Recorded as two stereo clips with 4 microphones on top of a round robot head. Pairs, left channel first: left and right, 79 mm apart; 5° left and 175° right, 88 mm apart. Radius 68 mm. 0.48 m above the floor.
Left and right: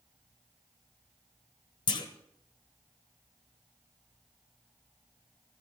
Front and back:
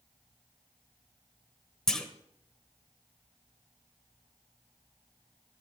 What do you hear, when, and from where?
1.9 s a clunk: 85° left, 1.4 m